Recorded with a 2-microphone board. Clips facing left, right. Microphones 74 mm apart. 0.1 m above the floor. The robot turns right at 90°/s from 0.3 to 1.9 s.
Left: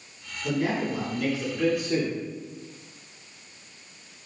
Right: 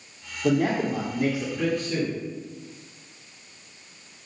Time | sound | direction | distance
0.4 | a man speaking | 105° right | 3 m